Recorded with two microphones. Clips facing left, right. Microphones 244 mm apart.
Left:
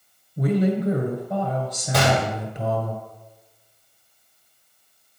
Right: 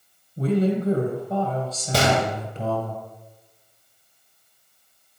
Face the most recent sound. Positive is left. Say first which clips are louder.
# even
turn(degrees=-30)  # may be behind; listen again after turning